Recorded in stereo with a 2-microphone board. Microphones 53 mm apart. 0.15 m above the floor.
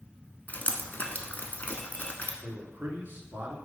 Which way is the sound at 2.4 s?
40° right (ahead or behind).